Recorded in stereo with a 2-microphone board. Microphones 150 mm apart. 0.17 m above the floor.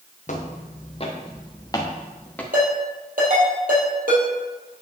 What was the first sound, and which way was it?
Footsteps, 55° left (ahead or behind).